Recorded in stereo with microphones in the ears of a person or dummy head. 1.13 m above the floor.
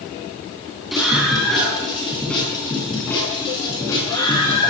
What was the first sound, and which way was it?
A scream, 5° right (ahead or behind).